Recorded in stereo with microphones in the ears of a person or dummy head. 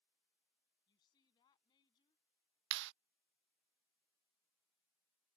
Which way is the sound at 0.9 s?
25° left (ahead or behind).